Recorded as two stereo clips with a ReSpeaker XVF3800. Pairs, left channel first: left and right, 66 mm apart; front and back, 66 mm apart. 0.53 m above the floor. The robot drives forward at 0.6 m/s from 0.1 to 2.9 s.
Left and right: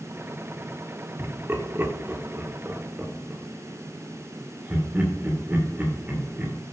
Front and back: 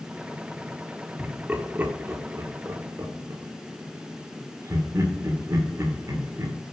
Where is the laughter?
105° right, 1.2 m; by 6.6 s 150° right, 1.7 m.